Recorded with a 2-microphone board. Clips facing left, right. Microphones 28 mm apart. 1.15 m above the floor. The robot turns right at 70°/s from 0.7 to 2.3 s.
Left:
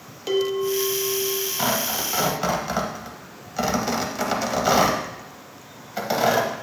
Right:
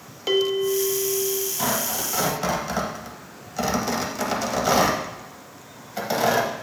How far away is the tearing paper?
About 1.1 m.